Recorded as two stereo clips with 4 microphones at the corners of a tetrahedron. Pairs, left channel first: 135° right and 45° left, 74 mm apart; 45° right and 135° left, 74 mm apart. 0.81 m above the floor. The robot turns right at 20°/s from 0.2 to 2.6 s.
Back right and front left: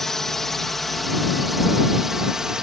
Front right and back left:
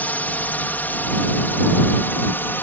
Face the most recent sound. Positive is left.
turn(degrees=-30)